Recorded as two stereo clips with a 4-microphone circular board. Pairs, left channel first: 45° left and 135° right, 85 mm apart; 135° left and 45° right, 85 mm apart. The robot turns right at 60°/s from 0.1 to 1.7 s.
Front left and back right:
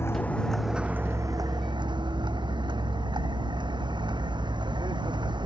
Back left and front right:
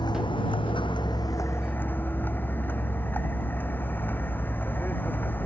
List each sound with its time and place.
0.0 s a vehicle: 105° left; by 5.5 s 155° right